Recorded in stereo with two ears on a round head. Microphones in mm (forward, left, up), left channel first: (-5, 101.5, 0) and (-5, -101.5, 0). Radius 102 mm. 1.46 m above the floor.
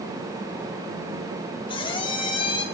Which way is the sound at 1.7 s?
25° left (ahead or behind).